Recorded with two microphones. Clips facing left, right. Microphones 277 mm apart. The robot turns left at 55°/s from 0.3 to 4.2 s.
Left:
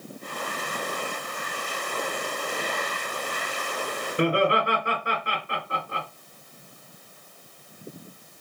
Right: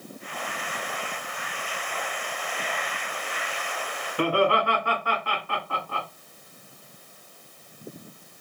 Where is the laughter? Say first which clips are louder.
Even; 20° left (ahead or behind), 1.5 m.